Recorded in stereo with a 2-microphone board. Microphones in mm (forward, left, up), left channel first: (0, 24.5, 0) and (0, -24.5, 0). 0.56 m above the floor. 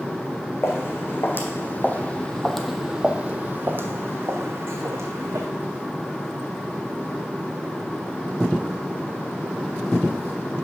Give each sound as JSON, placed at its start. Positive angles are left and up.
{"t": 0.6, "sound": "footsteps", "side_deg": 60, "distance_m": 1.5}